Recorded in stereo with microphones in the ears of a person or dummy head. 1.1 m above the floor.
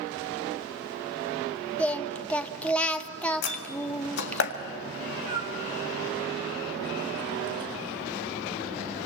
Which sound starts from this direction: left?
A door slam, at 3.4 s.